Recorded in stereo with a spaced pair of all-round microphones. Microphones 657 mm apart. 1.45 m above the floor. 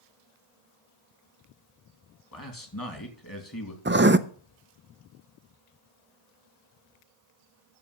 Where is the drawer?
No drawer in this recording.